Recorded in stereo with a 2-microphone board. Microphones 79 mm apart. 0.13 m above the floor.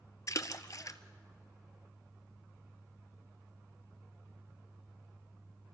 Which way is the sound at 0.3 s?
50° left (ahead or behind).